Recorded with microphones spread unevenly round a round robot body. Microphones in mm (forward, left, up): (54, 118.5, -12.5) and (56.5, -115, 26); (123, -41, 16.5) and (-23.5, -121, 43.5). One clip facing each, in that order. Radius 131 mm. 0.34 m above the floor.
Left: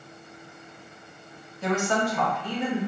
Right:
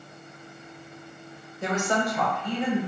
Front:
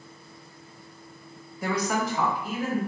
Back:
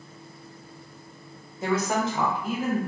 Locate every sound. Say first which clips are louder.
1.6 s a woman speaking: left 1 dB, back 2 dB; 85° right, 1.1 m; by 2.8 s 130° left, 1.3 m